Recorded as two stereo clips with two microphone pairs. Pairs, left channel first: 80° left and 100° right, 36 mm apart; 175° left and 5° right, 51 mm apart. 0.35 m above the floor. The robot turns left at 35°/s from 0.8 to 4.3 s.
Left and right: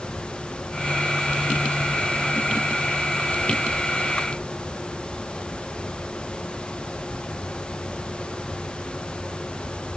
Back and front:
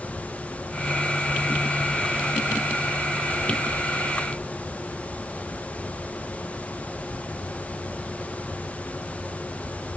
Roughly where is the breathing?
I don't hear breathing.